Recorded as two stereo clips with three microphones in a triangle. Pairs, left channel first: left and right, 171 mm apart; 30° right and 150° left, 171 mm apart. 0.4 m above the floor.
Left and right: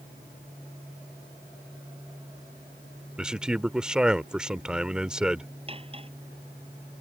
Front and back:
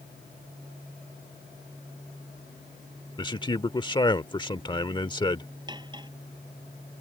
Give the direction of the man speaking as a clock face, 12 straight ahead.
12 o'clock.